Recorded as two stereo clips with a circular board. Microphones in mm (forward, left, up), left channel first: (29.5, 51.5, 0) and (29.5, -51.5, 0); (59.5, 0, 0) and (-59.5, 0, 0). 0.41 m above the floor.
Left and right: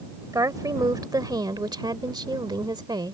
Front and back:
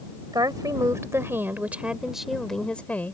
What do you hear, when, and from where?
0.3 s a woman speaking: 135° right; by 3.1 s 70° right